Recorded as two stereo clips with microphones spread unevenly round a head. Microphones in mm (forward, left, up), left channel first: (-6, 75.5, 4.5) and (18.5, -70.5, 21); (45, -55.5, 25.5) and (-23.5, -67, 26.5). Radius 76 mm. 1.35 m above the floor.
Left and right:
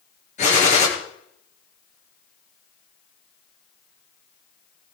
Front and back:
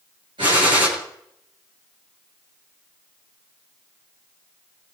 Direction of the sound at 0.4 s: 145° left.